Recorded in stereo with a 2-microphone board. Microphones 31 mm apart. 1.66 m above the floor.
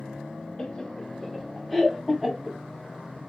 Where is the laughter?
25° left (ahead or behind), 1.2 m; by 2.6 s centre (ahead or behind), 2.5 m.